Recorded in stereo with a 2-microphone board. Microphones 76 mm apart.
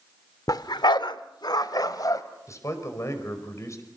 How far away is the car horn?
I don't hear a car horn.